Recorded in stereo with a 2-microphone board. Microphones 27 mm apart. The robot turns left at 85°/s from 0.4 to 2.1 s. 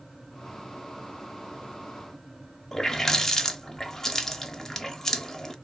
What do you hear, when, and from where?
2.7 s a running tap: 20° left (ahead or behind), 0.7 m